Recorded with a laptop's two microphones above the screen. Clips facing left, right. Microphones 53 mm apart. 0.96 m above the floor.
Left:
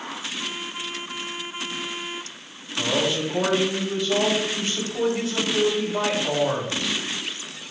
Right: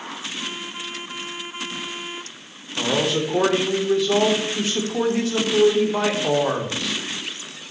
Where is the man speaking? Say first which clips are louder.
Right 2 dB; 80° right, 2 m.